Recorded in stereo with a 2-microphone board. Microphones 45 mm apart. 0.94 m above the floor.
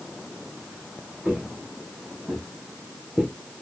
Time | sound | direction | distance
1.2 | footsteps | 30° right (ahead or behind) | 1.3 m